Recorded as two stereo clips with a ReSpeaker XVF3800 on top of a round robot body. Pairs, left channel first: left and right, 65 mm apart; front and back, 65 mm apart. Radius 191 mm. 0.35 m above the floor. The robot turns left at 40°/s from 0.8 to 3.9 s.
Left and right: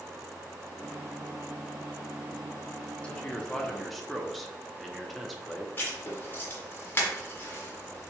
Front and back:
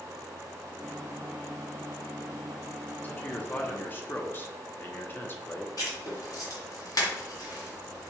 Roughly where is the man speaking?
Ahead left.